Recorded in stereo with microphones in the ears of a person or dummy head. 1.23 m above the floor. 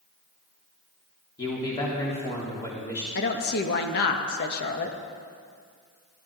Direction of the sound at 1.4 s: 20° left (ahead or behind).